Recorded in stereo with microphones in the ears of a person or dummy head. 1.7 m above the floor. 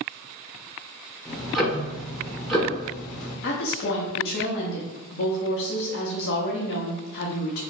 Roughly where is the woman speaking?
Left.